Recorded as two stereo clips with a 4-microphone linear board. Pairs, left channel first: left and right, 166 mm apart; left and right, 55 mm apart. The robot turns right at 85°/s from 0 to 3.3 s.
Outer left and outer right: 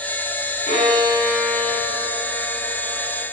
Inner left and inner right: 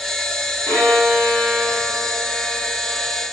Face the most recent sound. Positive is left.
turn(degrees=-25)